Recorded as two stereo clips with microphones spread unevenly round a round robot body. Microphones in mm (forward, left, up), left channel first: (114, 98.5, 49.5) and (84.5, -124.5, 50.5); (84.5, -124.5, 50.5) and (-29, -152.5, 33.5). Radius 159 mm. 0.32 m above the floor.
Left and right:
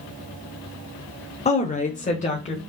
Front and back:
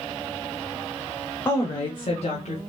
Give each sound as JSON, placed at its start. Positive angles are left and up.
{"t": 1.4, "sound": "a woman speaking", "azimuth_deg": 85, "distance_m": 0.9}